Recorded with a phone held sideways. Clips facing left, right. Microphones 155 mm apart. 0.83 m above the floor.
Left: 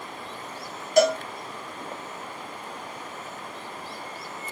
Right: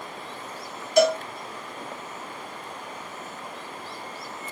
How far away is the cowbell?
About 0.9 m.